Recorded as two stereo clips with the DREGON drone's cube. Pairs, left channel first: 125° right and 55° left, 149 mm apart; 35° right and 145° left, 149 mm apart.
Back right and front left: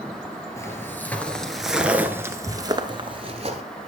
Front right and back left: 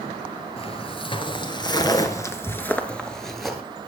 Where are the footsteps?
60° right, 1.8 m; by 3.6 s 60° left, 1.8 m.